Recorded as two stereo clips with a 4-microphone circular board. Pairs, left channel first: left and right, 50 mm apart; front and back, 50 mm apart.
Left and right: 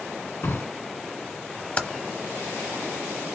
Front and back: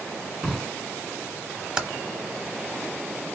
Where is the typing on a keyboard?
115° left, 0.9 m.